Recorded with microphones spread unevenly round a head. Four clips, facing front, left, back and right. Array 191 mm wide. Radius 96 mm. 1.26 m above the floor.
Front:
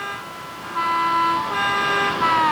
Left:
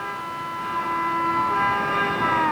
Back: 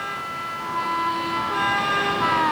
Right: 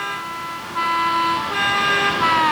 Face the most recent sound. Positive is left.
No sound to turn to.